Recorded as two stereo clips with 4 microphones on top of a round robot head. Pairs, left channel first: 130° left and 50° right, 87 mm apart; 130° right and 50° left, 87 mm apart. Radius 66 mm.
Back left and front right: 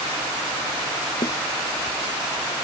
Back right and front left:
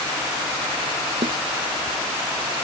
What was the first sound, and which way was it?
A snare drum, 85° left.